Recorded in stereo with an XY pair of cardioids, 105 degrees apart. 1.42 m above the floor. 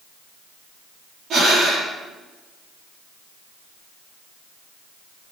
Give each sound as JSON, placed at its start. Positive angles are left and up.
{"t": 1.3, "sound": "breathing", "azimuth_deg": -60, "distance_m": 9.5}